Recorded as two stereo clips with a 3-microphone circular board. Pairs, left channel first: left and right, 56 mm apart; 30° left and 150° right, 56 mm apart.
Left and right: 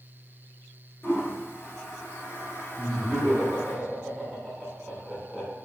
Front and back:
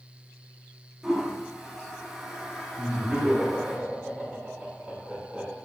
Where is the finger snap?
No finger snap in this recording.